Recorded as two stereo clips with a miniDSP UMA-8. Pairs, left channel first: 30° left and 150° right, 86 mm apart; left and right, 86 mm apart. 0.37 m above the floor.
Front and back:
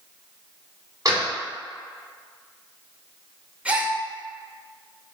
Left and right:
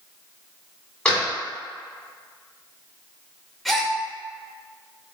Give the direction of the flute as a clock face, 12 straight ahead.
No flute in this recording.